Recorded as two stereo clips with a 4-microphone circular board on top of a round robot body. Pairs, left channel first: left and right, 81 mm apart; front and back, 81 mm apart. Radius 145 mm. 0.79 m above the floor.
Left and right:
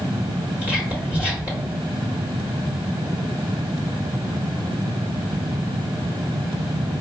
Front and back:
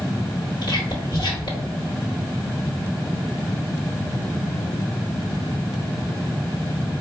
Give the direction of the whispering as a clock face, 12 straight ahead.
1 o'clock.